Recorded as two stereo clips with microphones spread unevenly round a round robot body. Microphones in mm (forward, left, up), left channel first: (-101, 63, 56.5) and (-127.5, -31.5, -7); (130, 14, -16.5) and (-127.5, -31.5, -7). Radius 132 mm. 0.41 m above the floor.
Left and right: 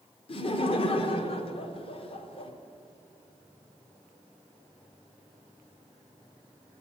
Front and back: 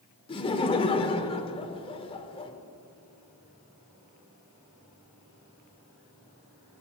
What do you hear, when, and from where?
0.3 s laughter: 35° left, 0.9 m